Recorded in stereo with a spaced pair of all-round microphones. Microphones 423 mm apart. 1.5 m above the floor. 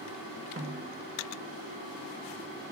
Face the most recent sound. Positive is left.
turn(degrees=-30)  # may be behind; listen again after turning